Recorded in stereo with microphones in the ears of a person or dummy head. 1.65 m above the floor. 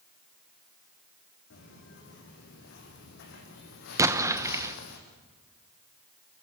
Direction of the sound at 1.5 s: 75° left (ahead or behind).